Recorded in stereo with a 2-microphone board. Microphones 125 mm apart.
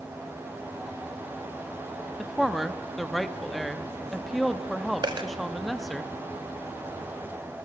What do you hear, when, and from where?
2.2 s a woman speaking: centre (ahead or behind), 0.7 m
5.0 s a dropped coin: 40° right (ahead or behind), 0.9 m